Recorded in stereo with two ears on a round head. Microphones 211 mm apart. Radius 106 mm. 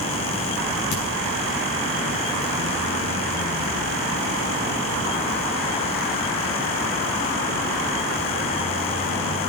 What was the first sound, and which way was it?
A crack, 70° left (ahead or behind).